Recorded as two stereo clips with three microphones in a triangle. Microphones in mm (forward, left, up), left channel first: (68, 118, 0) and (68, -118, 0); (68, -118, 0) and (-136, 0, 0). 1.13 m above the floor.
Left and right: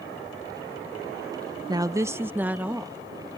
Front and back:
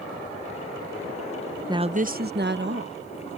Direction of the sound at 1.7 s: 145° right.